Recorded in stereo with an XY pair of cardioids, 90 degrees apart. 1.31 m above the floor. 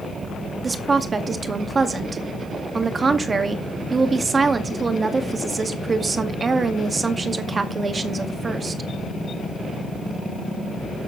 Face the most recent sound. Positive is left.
turn(degrees=-40)